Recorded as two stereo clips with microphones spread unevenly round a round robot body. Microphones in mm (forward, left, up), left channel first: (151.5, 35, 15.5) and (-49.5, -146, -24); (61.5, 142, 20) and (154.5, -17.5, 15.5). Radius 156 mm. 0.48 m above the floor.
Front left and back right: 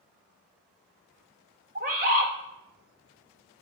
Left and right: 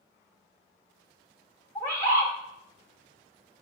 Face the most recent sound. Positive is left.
turn(degrees=-165)